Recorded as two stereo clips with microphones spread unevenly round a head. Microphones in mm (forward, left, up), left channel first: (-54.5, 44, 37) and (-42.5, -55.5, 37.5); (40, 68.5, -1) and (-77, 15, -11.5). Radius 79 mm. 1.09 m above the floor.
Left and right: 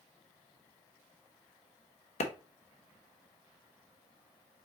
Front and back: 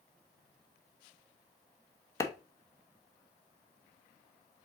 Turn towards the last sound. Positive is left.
turn(degrees=90)